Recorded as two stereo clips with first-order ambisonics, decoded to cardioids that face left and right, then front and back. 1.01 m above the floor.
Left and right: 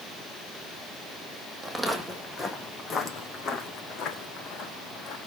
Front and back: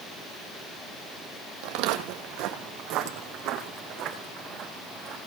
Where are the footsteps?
175° right, 2.5 m; by 5.2 s 125° left, 5 m.